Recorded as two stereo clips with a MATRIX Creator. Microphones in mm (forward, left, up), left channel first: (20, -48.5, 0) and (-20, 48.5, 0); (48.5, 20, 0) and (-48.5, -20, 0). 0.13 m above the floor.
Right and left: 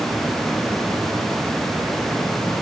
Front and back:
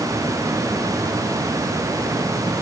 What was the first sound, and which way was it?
Only background noise.